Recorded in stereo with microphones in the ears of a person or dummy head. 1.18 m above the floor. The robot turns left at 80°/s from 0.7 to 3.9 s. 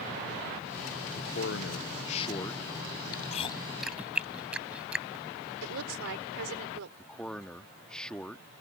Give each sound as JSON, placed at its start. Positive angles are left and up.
{"t": 1.2, "sound": "a man speaking", "azimuth_deg": 125}
{"t": 3.1, "sound": "chewing", "side_deg": 55}
{"t": 5.6, "sound": "a woman speaking", "side_deg": -75}
{"t": 7.0, "sound": "a man speaking", "side_deg": 10}